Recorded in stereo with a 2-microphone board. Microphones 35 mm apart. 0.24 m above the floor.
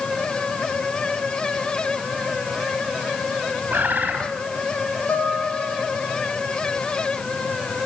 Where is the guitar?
75° left (ahead or behind), 8.5 m.